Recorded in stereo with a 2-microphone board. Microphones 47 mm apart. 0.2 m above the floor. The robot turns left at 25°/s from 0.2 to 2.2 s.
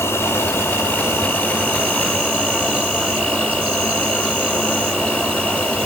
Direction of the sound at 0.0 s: 80° left.